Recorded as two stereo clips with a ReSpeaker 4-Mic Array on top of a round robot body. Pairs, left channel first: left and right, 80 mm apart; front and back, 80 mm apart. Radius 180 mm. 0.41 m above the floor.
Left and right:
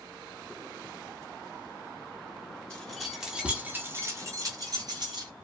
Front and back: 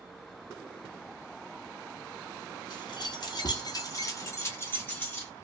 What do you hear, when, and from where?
2.7 s keys jangling: 15° left, 1.2 m; by 5.3 s 75° right, 1.6 m